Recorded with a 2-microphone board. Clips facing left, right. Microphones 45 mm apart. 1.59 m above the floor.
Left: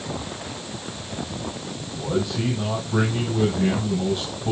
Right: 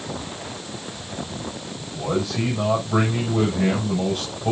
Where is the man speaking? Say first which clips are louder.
Right 1 dB; 85° right, 6.5 m.